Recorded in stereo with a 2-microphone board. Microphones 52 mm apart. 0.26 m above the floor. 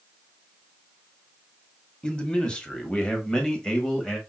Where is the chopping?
I don't hear chopping.